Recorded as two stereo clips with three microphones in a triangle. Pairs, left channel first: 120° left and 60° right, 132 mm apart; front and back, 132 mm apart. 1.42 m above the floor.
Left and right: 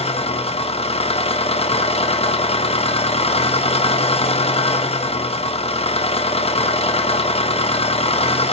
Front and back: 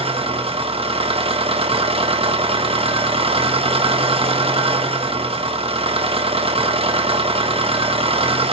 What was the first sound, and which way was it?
An engine running, 150° left.